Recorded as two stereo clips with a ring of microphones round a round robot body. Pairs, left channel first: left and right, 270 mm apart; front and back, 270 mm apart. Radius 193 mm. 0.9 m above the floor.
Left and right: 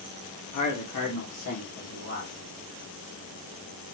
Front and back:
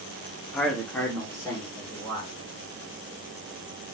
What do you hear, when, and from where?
0.5 s a man speaking: 90° left, 1.8 m; by 2.3 s 75° left, 3 m